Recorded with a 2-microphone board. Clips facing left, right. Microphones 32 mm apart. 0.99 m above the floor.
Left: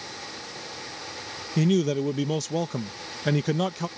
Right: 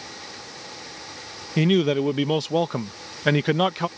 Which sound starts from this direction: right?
A man speaking, at 1.6 s.